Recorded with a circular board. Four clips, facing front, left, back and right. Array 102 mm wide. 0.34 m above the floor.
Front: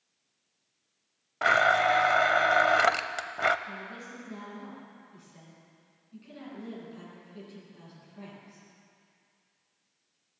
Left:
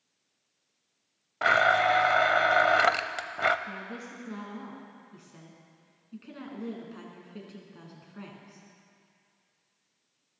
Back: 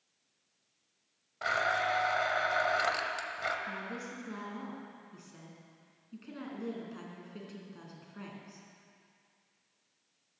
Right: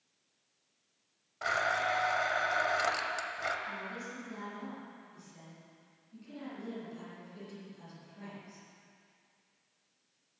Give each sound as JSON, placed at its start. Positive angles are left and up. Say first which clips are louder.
{"t": 1.4, "sound": "a blender", "louder": "left 9 dB, front 8 dB", "azimuth_deg": 40, "distance_m": 0.6}
{"t": 3.7, "sound": "a woman speaking", "louder": "left 2 dB, back 1 dB", "azimuth_deg": 130, "distance_m": 4.0}